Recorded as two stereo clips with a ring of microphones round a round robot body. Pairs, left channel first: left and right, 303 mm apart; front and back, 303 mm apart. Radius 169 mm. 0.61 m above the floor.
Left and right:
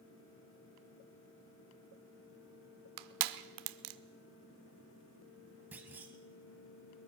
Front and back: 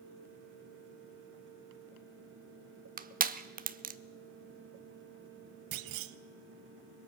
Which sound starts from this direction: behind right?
Crushing, at 3.0 s.